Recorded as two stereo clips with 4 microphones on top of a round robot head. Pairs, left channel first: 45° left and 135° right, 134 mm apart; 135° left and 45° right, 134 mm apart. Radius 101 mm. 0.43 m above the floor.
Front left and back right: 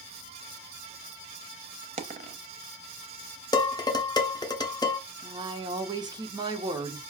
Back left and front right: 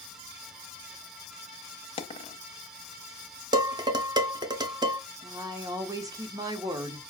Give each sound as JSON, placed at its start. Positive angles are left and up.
{"t": 2.0, "sound": "a dropped coin", "azimuth_deg": -175, "distance_m": 0.6}
{"t": 3.5, "sound": "dishes clattering", "azimuth_deg": 0, "distance_m": 0.8}
{"t": 5.2, "sound": "a woman speaking", "azimuth_deg": -95, "distance_m": 1.0}